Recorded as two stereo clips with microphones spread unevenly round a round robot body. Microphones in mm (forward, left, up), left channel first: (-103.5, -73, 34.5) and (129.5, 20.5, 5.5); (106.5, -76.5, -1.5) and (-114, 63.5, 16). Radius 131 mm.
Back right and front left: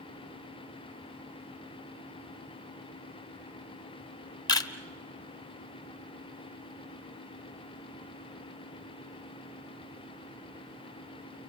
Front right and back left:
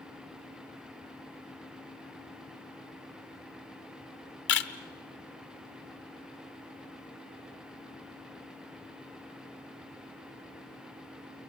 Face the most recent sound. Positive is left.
turn(degrees=-80)